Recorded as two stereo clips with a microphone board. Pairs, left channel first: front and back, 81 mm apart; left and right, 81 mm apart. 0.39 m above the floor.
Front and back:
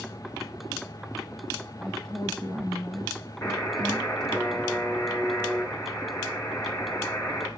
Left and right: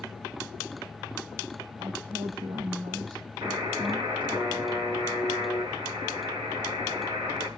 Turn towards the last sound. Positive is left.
turn(degrees=-65)